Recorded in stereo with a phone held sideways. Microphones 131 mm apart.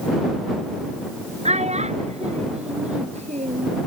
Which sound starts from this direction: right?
A child speaking, at 1.4 s.